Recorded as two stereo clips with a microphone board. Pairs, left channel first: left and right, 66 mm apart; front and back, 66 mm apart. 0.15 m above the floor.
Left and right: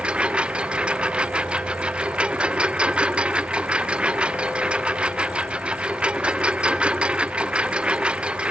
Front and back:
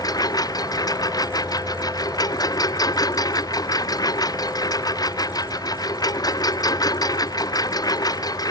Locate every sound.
0.0 s a lawn mower: 15° right